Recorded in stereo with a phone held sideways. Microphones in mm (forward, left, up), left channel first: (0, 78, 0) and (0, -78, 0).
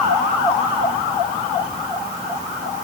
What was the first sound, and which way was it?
Only background noise.